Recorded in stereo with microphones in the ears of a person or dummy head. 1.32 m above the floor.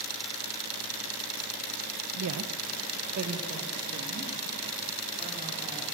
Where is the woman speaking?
75° right (ahead or behind), 0.9 m; by 5.8 s 25° right (ahead or behind), 4 m.